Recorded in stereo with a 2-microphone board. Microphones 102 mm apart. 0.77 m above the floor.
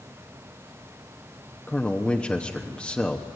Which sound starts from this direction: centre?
A man speaking, at 1.7 s.